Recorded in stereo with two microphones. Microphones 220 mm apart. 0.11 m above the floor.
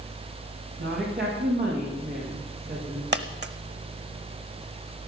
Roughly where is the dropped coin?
Right.